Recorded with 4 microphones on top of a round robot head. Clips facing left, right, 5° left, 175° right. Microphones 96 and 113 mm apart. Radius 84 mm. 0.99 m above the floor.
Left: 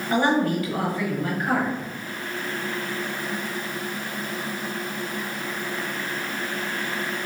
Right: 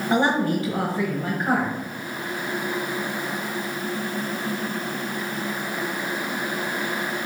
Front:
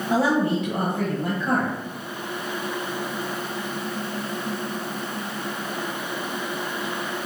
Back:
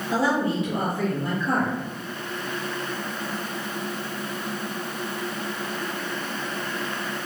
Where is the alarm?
No alarm in this recording.